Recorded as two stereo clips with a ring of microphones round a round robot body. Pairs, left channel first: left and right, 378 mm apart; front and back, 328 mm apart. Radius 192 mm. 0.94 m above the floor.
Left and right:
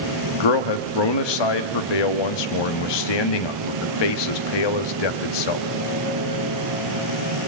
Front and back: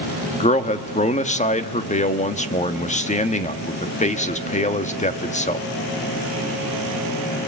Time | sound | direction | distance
0.4 | a man speaking | 70° left | 1.5 m